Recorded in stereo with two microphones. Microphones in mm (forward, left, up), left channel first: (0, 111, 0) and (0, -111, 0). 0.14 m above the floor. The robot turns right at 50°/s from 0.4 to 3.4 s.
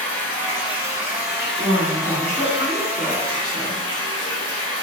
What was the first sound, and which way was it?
Running water, 10° left.